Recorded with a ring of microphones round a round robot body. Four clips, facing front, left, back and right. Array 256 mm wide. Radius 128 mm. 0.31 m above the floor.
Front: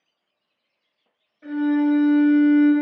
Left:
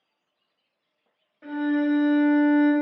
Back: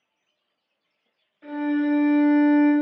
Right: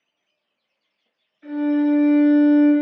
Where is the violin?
105° left, 1.8 m.